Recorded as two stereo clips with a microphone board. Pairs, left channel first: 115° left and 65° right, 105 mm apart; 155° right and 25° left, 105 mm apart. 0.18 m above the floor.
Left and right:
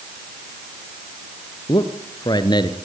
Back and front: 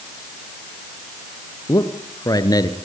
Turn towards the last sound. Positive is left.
turn(degrees=155)